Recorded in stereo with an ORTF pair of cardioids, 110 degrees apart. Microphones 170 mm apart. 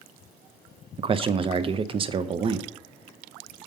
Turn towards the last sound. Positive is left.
turn(degrees=-35)